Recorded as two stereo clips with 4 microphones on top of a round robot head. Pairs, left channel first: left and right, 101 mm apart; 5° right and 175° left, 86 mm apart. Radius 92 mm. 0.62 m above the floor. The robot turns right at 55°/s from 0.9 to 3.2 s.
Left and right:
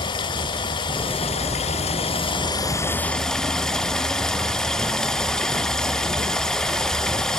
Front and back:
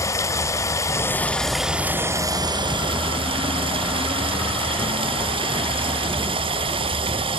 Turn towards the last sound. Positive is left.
turn(degrees=175)